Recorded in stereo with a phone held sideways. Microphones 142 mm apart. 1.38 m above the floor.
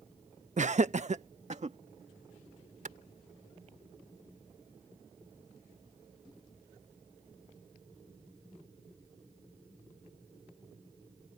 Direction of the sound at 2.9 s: 60° right (ahead or behind).